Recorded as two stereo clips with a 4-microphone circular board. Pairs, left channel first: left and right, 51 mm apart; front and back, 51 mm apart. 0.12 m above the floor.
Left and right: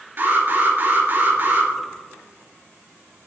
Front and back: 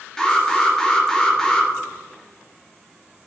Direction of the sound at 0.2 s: 70° right.